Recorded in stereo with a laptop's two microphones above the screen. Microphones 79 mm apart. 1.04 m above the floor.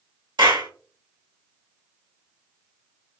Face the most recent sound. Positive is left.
turn(degrees=-65)  # may be behind; listen again after turning